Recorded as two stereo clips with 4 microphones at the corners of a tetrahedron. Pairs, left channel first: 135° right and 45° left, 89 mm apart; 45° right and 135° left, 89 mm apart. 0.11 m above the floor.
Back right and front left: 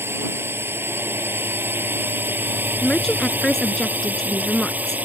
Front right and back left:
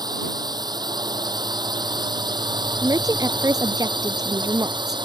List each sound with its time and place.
0.0 s a drone: 105° left; by 5.0 s 115° left
2.8 s a woman speaking: 145° left